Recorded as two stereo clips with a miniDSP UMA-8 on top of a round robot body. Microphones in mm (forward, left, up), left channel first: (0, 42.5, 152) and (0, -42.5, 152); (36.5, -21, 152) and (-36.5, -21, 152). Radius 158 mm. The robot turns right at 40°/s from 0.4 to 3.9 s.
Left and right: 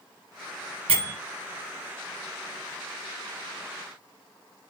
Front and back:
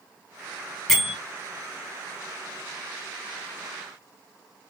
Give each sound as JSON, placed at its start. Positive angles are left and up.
{"t": 0.9, "sound": "a bell", "azimuth_deg": -90, "distance_m": 2.0}